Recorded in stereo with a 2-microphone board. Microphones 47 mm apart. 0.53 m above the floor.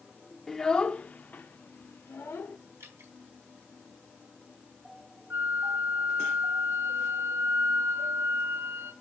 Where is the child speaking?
5° left (ahead or behind), 0.7 m; by 2.6 s 60° left (ahead or behind), 1.3 m.